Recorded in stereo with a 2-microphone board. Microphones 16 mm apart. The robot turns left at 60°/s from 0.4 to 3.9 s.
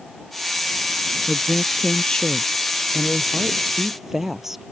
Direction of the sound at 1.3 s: 135° left.